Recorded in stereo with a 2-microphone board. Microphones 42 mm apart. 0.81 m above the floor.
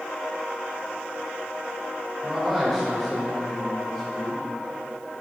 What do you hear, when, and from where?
2.2 s a man speaking: centre (ahead or behind), 3.5 m; by 4.4 s 15° left (ahead or behind), 3 m